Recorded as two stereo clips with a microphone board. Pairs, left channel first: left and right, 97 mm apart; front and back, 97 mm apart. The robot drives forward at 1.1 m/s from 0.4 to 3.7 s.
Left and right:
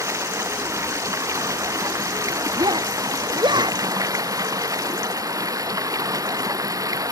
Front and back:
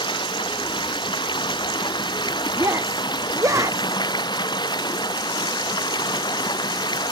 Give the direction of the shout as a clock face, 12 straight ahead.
4 o'clock.